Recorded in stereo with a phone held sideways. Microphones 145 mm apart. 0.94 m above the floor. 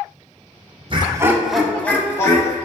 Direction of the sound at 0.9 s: 40° right (ahead or behind).